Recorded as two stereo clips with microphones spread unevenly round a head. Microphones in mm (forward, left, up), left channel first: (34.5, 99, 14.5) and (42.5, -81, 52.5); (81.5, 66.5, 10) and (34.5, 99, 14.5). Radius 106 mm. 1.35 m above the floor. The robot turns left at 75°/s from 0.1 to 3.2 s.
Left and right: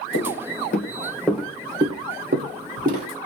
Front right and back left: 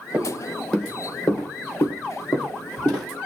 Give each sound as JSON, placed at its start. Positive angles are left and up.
{"t": 0.1, "sound": "footsteps", "azimuth_deg": 85, "distance_m": 3.5}